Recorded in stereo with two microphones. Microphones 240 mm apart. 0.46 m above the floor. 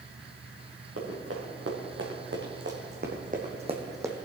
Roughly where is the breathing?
I don't hear breathing.